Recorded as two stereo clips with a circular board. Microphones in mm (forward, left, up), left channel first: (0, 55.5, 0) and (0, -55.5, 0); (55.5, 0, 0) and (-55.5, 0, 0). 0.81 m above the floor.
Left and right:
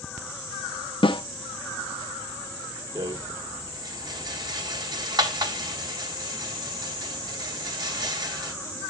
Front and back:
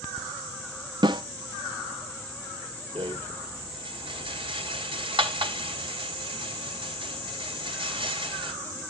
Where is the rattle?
140° right, 1.3 m.